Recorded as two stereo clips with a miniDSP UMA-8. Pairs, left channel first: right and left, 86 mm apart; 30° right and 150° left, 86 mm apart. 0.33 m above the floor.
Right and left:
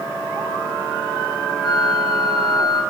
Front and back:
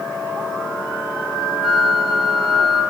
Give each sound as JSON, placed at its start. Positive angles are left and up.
{"t": 1.6, "sound": "a flute", "azimuth_deg": -125, "distance_m": 4.0}